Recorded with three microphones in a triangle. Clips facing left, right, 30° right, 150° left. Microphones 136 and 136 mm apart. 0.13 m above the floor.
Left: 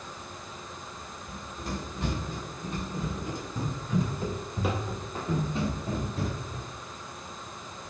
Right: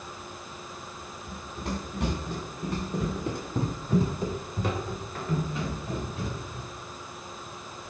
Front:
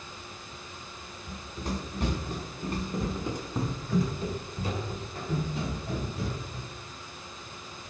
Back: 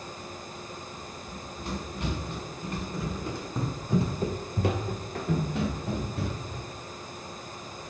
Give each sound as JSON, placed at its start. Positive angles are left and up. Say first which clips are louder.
{"t": 1.3, "sound": "running footsteps", "louder": "right 2 dB, front 2 dB", "azimuth_deg": -70, "distance_m": 1.8}